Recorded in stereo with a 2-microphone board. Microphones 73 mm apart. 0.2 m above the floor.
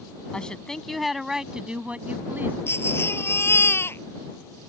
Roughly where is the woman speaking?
Centre.